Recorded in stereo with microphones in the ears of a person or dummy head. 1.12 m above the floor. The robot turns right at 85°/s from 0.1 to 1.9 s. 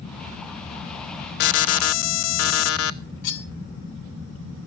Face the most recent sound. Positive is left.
turn(degrees=65)  # may be behind; listen again after turning